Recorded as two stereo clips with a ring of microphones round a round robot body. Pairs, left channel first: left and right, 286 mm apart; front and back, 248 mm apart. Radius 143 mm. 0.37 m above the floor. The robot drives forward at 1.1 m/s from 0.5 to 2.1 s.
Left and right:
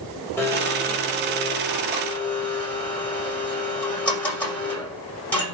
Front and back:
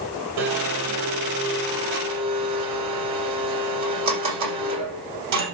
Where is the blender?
175° left, 4.5 m.